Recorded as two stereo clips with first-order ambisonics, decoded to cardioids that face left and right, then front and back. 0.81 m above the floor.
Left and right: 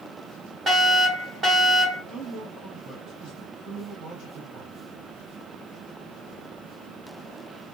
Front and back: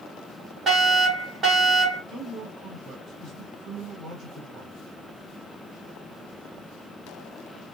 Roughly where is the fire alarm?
Behind right.